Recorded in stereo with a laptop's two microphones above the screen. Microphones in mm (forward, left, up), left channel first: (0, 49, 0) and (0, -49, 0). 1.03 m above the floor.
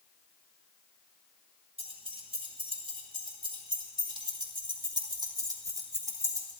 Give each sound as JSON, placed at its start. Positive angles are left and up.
{"t": 1.8, "sound": "keys jangling", "side_deg": -80, "distance_m": 4.0}